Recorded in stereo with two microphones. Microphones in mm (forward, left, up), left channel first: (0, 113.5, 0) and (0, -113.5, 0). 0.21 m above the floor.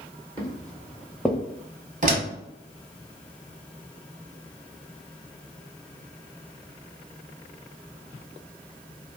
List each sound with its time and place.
0.4 s footsteps: 20° right (ahead or behind), 1.3 m; by 1.4 s 10° left (ahead or behind), 0.6 m
2.0 s a door slam: 35° right (ahead or behind), 0.8 m